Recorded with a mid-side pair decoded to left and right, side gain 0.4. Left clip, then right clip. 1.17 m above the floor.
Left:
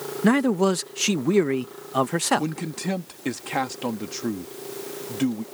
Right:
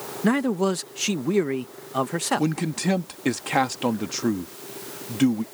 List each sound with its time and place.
0.2 s a man speaking: 25° left
2.4 s a man speaking: 30° right